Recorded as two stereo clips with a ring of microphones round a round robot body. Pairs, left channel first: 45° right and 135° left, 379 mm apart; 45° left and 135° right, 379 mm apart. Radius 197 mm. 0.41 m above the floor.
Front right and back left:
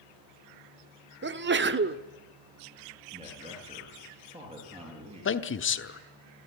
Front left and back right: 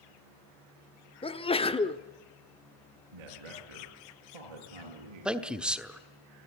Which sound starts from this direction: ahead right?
A man speaking, at 5.2 s.